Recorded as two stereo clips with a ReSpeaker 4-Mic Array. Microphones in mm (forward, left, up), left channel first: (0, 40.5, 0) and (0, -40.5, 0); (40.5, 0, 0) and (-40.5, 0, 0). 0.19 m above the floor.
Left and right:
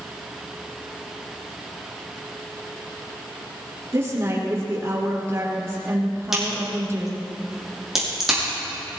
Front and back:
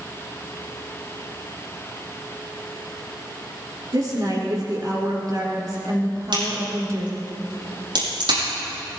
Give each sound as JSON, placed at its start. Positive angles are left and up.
{"t": 3.9, "sound": "a woman speaking", "azimuth_deg": -145, "distance_m": 4.5}
{"t": 6.3, "sound": "a crack", "azimuth_deg": -175, "distance_m": 6.0}